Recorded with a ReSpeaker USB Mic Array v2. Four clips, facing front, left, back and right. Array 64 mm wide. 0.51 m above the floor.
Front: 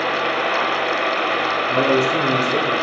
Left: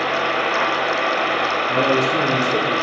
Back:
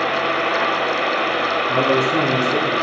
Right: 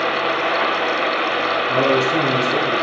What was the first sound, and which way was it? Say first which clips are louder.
A man speaking: right 2 dB, front 1 dB; 150° right.